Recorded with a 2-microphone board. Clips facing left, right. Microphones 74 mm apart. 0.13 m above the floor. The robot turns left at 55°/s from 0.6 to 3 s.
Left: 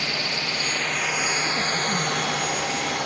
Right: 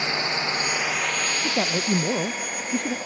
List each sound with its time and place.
0.0 s a drone: 20° right (ahead or behind); by 3.1 s 70° left (ahead or behind)
1.4 s a man speaking: 40° right; by 3.0 s 125° right